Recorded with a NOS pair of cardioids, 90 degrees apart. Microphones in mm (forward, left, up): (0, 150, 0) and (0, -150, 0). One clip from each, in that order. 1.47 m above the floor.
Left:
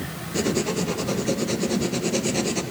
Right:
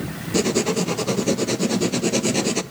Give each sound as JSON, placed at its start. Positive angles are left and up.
{"t": 0.3, "sound": "writing", "azimuth_deg": -50, "distance_m": 0.8}